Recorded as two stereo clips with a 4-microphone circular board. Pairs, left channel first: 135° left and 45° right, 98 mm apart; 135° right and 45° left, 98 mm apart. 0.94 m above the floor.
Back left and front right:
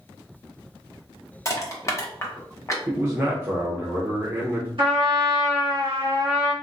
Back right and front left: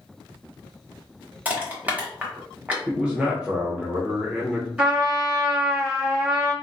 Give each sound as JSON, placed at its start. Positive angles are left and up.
{"t": 1.4, "sound": "crushing", "azimuth_deg": 105, "distance_m": 0.9}
{"t": 2.9, "sound": "a man speaking", "azimuth_deg": -20, "distance_m": 0.7}
{"t": 4.8, "sound": "a trumpet", "azimuth_deg": -25, "distance_m": 1.5}